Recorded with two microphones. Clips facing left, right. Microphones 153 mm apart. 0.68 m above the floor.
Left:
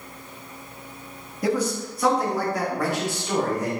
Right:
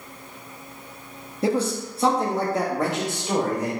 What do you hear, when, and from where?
1.4 s a man speaking: 25° right (ahead or behind), 0.8 m; by 3.7 s 20° right (ahead or behind), 2 m